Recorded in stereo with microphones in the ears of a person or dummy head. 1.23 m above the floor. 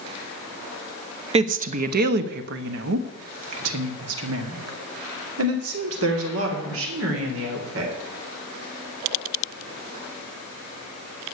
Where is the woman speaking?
35° right (ahead or behind), 0.9 m; by 7.9 s 80° right, 3.5 m.